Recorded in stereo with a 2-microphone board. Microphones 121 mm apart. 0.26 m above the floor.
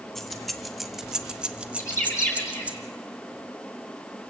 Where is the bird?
20° left (ahead or behind), 5.5 m.